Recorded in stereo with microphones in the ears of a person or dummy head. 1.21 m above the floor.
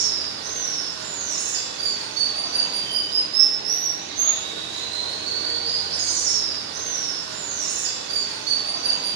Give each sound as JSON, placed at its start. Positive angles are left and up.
{"t": 0.0, "sound": "running water", "side_deg": -60, "distance_m": 1.6}